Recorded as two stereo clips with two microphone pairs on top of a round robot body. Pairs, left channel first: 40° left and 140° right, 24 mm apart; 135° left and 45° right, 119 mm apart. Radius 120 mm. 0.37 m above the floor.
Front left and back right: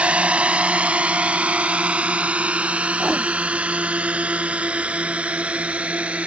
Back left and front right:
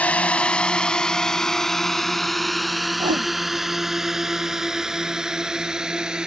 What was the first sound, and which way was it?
A drone, 145° right.